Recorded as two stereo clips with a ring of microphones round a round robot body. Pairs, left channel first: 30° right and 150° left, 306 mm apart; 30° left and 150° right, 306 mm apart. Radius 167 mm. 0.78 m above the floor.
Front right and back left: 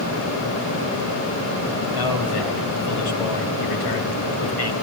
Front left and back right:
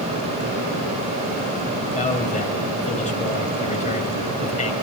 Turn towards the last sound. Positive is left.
turn(degrees=-40)